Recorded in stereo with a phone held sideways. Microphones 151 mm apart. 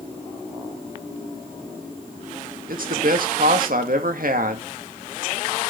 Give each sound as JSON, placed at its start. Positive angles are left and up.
{"t": 2.7, "sound": "a man speaking", "side_deg": -70, "distance_m": 1.9}